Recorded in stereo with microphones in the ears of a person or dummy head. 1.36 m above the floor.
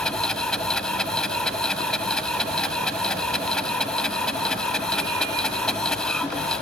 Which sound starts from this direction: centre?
A machine running, at 0.0 s.